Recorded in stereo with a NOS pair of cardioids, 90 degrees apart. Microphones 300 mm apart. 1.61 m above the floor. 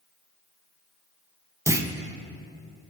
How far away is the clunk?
About 0.7 m.